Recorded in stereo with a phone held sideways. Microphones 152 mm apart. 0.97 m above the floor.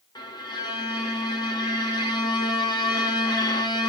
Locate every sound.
0.1 s a violin: 30° left (ahead or behind), 0.8 m